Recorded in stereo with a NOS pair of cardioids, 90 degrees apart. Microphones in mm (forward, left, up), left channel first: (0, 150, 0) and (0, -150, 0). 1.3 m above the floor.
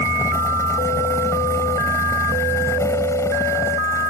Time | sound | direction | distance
0.0 | a fan | 10° left | ?